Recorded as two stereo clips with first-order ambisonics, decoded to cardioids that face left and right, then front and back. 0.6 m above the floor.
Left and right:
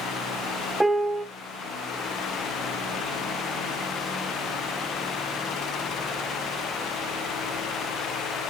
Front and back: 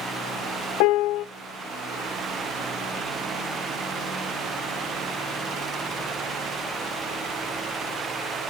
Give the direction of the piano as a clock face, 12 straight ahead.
12 o'clock.